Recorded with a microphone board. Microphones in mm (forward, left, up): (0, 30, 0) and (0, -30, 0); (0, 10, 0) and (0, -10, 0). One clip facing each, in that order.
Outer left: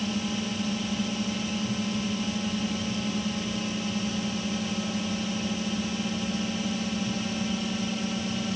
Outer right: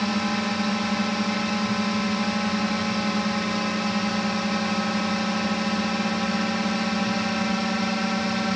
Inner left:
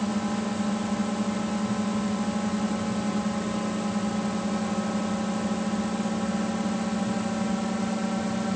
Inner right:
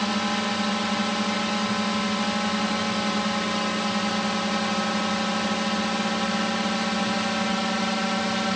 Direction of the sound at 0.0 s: 65° right (ahead or behind).